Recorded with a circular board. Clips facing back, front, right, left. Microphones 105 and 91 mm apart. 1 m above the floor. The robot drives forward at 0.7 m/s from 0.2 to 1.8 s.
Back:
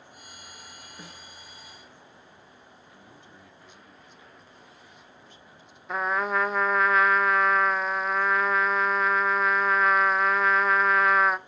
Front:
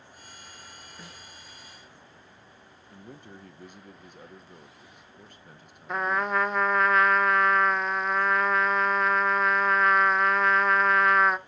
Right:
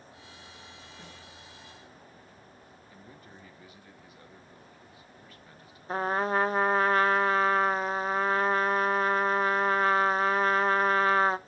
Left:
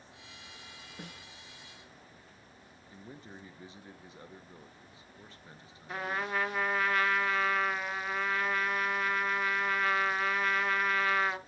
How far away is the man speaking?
About 1.7 m.